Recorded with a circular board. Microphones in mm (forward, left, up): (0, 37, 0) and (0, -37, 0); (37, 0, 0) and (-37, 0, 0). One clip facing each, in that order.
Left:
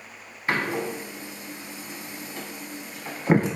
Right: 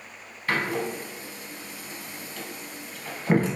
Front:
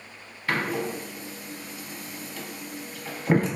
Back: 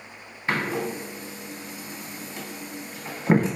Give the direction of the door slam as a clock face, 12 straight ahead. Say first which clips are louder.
Left 1 dB, back 1 dB; 7 o'clock.